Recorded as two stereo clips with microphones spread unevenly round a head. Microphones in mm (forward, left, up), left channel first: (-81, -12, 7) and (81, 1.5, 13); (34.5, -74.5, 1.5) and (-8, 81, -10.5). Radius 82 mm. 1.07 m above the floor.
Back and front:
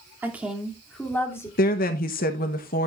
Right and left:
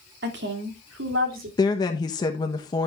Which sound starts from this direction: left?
A woman speaking, at 0.2 s.